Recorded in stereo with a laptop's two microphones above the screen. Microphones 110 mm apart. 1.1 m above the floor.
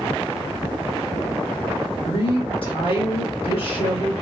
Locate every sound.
2.0 s a woman speaking: 55° left (ahead or behind), 1.3 m